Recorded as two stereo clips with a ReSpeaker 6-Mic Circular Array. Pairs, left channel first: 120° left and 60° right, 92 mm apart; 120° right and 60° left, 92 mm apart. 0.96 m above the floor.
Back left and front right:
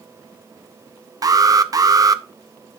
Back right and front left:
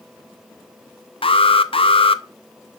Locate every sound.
1.2 s an alarm: 110° right, 0.6 m